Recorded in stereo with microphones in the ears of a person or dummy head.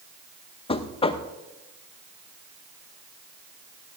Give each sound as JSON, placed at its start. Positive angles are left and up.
{"t": 0.7, "sound": "knocking", "side_deg": 25, "distance_m": 0.6}